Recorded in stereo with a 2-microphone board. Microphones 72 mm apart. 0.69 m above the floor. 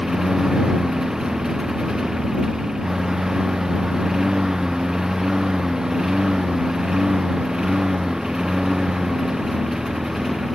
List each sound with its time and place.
0.0 s a lawn mower: 5° right (ahead or behind)